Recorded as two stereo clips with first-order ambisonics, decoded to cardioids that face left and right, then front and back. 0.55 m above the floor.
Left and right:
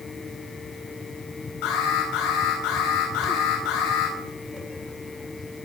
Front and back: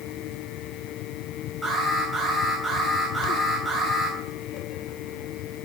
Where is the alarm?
95° left, 7.5 m.